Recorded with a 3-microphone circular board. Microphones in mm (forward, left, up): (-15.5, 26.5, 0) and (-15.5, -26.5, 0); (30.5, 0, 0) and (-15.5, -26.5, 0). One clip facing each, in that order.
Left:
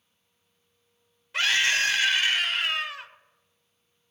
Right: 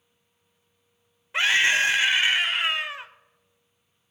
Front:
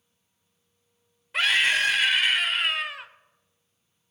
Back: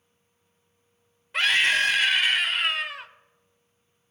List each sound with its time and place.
1.3 s a scream: 60° right, 0.8 m